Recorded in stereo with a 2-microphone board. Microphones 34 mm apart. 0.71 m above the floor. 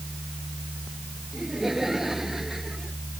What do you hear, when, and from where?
1.3 s laughter: 10° right (ahead or behind)